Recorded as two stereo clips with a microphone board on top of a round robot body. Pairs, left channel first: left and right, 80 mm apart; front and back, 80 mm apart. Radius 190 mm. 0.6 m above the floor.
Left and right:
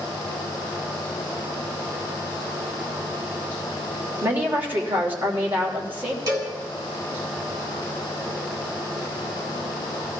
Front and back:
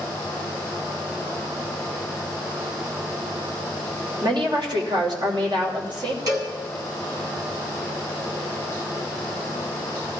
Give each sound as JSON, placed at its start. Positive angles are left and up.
{"t": 4.2, "sound": "a woman speaking", "azimuth_deg": -160, "distance_m": 3.0}
{"t": 6.3, "sound": "a cowbell", "azimuth_deg": -135, "distance_m": 3.0}